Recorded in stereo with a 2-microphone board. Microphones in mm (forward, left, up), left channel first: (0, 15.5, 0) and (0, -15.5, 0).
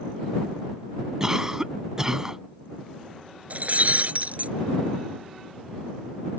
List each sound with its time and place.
1.2 s a cough: 20° right (ahead or behind)
3.5 s breaking glass: 50° right (ahead or behind)